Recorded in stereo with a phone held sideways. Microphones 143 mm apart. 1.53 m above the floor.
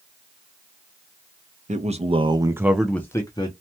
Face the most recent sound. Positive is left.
turn(degrees=35)  # may be behind; listen again after turning